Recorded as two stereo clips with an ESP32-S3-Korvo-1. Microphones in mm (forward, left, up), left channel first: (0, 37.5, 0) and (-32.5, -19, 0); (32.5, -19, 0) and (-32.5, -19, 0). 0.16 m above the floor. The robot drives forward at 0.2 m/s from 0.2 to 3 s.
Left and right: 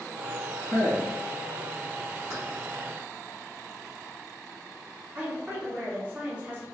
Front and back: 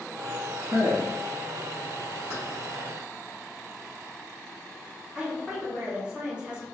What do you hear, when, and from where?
0.6 s a man speaking: 150° right, 1.8 m; by 1.1 s 155° right, 1.8 m
2.3 s keys jangling: 150° right, 1.5 m
5.2 s a woman speaking: 135° right, 1.1 m